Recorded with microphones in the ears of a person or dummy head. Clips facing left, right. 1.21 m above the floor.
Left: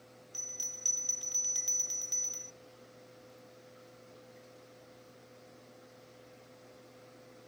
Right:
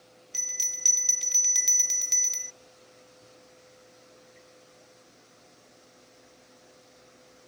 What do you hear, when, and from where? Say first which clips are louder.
0.3 s a bell: right 1 dB; 30° right (ahead or behind)